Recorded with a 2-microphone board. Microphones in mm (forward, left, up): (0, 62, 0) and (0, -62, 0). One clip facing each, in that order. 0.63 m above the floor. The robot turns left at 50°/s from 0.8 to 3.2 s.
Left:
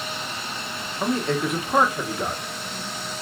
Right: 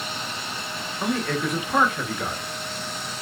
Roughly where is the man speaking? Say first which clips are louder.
Left 2 dB; left.